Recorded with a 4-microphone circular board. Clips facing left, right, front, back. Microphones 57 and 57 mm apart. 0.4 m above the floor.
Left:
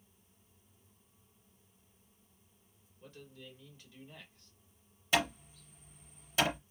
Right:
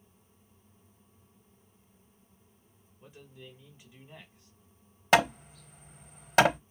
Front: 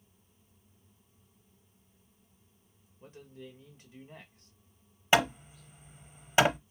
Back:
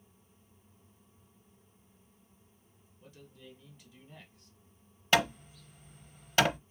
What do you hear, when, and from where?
3.0 s a man speaking: 25° right, 1.4 m
5.1 s hammering: 70° right, 0.6 m